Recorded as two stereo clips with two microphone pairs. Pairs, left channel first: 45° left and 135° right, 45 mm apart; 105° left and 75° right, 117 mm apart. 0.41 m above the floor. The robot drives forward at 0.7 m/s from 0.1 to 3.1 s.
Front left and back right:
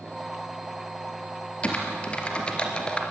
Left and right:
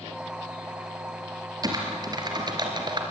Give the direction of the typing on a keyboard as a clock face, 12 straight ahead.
1 o'clock.